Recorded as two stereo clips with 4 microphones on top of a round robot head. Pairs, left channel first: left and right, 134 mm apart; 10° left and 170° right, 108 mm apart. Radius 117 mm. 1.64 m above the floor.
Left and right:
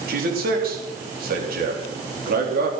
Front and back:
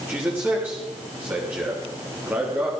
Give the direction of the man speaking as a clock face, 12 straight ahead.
3 o'clock.